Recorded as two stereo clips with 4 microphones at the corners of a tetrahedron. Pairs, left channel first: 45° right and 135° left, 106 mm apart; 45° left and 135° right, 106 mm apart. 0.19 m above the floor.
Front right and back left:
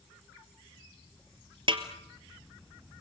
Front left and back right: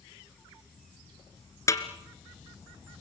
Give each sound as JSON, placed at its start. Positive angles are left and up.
{"t": 1.7, "sound": "a snare drum", "azimuth_deg": 105, "distance_m": 2.0}